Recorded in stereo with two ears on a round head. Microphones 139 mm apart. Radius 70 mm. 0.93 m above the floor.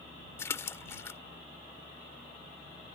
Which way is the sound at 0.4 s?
20° left (ahead or behind).